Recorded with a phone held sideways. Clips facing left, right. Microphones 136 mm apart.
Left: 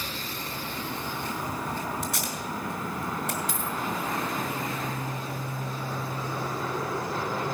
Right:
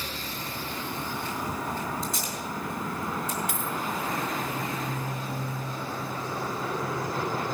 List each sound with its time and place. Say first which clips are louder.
2.0 s tape being pulled: even; 75° left (ahead or behind), 3.5 m
3.5 s a dropped coin: even; 60° right (ahead or behind), 1.6 m